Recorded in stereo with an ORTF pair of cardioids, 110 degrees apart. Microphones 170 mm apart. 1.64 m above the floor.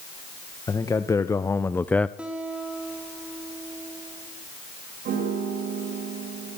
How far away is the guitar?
About 3.5 m.